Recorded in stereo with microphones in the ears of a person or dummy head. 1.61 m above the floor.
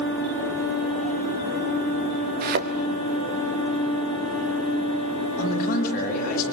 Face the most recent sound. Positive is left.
turn(degrees=50)  # may be behind; listen again after turning